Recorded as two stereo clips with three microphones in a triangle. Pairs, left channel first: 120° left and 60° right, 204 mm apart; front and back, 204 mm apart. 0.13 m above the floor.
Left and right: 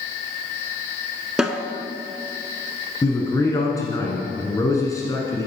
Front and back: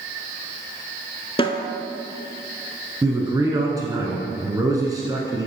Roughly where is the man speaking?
Behind left.